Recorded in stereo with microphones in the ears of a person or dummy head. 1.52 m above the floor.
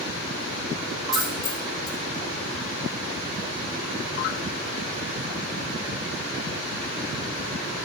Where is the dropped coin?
5° right (ahead or behind), 4.5 m.